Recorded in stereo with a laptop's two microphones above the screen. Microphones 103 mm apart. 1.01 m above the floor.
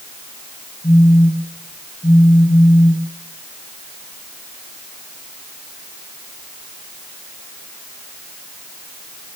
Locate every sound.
0.8 s a phone buzzing: 65° left (ahead or behind), 8.5 m